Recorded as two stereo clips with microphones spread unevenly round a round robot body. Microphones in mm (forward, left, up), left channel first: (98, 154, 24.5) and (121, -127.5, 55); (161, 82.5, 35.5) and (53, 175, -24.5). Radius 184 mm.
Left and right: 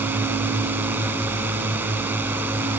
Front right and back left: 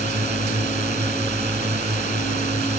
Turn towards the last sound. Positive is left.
turn(degrees=-170)